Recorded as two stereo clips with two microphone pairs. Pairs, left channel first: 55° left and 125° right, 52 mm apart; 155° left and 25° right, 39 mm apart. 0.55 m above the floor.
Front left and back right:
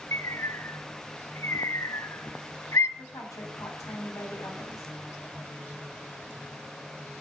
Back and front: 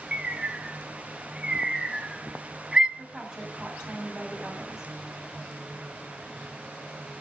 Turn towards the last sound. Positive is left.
turn(degrees=45)